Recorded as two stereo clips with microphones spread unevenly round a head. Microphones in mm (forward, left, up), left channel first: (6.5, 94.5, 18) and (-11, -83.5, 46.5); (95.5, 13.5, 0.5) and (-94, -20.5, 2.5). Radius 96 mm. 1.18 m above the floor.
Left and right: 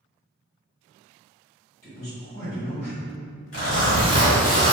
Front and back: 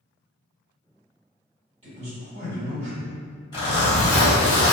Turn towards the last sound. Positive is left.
turn(degrees=70)